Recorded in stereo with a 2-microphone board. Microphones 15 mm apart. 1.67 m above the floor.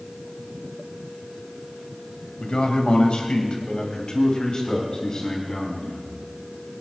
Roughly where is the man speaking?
Left.